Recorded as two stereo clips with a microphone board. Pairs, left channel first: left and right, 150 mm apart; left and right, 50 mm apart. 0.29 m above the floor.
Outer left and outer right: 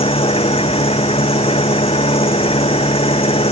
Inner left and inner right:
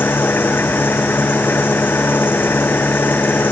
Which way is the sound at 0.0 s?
40° left (ahead or behind).